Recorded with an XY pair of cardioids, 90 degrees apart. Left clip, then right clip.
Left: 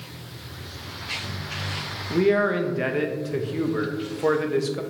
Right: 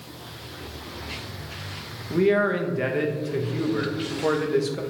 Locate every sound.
2.1 s a man speaking: 10° left, 0.6 m